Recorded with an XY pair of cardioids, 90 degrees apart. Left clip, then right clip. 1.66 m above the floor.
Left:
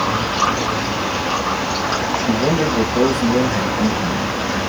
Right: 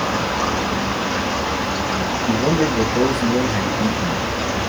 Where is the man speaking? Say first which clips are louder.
Right 1 dB; 15° left, 1.8 m.